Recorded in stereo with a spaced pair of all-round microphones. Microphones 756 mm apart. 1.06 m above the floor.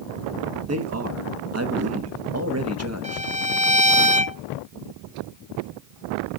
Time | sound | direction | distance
0.7 | a man speaking | 20° right (ahead or behind) | 1.2 m
3.0 | a violin | 10° right (ahead or behind) | 0.7 m